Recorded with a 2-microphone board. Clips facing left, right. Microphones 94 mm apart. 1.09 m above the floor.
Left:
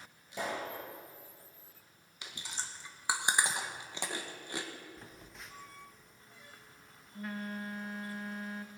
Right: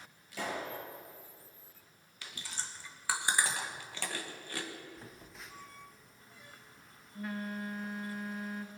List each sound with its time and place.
0.3 s a pop: 20° left (ahead or behind), 4.5 m
2.2 s chewing: 20° left (ahead or behind), 1.2 m
5.0 s a phone buzzing: centre (ahead or behind), 0.7 m